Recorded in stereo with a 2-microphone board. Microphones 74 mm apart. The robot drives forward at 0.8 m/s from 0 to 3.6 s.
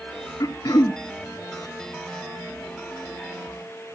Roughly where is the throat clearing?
Left.